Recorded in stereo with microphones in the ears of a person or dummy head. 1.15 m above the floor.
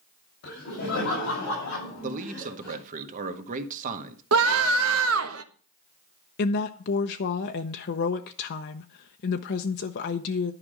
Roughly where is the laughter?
Left.